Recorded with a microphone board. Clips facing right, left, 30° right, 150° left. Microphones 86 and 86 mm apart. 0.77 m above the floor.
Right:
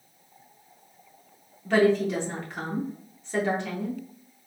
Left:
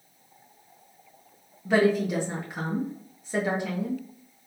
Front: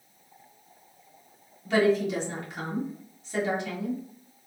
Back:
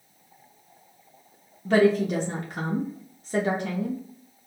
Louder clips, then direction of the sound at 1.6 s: Right 1 dB, back 3 dB; 165° left.